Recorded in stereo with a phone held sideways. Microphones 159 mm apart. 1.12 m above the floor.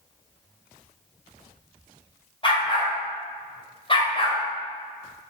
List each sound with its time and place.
2.4 s a dog barking: 35° left (ahead or behind), 3 m